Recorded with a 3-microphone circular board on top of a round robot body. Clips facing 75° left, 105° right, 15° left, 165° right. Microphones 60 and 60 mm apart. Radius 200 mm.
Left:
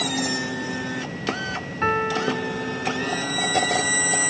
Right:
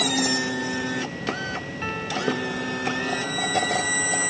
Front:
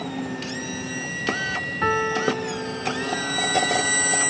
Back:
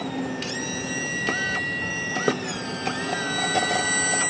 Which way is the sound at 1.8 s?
30° left.